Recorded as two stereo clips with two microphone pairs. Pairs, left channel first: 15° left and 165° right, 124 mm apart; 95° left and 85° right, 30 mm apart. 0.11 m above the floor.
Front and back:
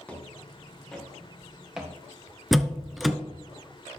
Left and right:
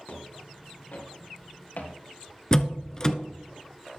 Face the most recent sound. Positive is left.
turn(degrees=110)